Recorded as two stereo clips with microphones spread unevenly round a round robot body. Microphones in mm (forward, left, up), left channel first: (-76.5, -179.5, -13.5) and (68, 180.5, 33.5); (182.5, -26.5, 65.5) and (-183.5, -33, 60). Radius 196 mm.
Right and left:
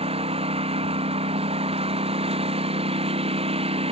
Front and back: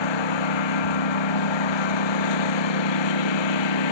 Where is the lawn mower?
10° right.